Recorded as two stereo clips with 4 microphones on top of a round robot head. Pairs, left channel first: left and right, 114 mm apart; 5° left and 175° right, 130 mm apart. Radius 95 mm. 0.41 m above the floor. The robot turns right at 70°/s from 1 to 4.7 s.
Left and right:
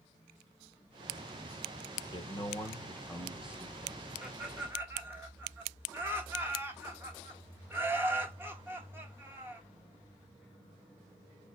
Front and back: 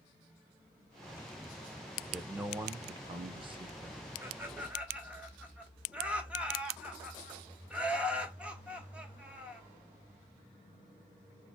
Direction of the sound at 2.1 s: 95° left.